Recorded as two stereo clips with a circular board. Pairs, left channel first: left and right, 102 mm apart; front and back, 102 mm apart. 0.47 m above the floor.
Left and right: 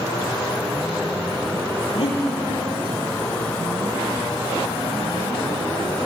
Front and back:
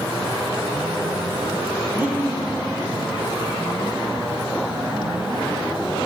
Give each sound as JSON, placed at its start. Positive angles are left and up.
{"t": 1.9, "sound": "breathing", "azimuth_deg": 115, "distance_m": 3.5}